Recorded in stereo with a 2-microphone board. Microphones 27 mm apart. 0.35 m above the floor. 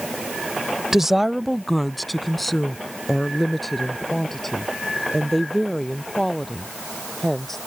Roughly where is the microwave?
No microwave in this recording.